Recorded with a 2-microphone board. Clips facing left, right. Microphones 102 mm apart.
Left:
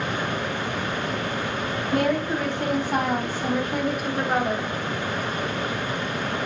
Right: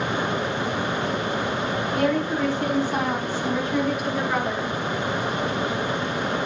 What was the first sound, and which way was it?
A woman speaking, 65° left (ahead or behind).